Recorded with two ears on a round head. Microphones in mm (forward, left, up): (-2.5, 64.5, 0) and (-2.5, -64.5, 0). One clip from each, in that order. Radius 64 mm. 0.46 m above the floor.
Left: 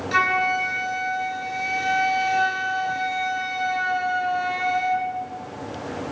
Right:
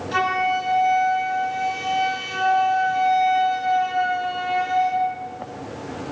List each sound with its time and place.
0.1 s a flute: 55° left (ahead or behind), 7 m